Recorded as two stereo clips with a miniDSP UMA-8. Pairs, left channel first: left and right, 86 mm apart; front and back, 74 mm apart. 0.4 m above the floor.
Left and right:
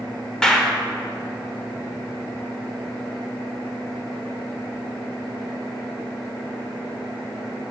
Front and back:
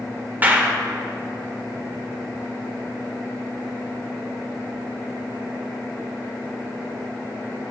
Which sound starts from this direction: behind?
A clap, at 0.4 s.